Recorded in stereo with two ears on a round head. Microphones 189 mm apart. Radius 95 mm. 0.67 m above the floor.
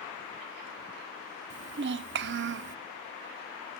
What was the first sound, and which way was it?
A child speaking, 55° right (ahead or behind).